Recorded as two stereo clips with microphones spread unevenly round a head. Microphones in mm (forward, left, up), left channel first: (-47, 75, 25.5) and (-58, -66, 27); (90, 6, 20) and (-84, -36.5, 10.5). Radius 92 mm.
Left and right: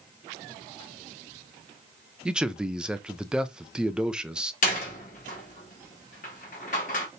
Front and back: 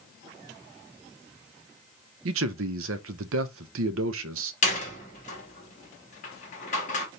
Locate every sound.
2.2 s a man speaking: straight behind, 0.6 m
4.6 s a door slam: 50° left, 1.4 m